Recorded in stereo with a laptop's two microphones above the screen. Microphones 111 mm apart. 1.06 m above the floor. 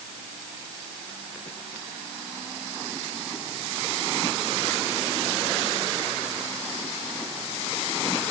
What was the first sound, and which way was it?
Only background noise.